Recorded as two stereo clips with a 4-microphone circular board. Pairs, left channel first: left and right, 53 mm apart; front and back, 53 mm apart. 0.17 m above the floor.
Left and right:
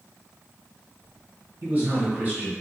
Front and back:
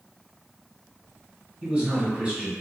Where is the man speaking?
125° right, 1.9 m.